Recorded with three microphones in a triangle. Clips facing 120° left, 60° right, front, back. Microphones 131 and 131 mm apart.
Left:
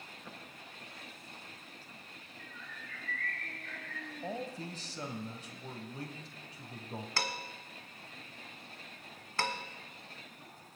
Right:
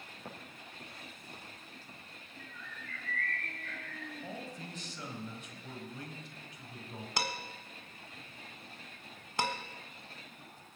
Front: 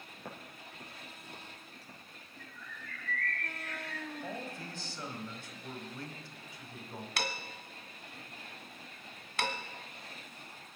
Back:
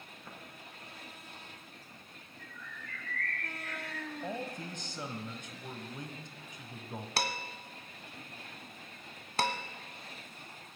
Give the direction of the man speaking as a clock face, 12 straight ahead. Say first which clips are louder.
Left 8 dB, back 3 dB; 8 o'clock.